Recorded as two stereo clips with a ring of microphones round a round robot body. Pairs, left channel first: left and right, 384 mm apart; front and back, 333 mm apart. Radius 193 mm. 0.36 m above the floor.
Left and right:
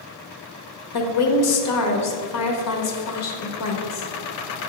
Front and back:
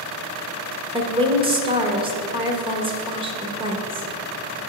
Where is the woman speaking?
110° left, 1.1 m.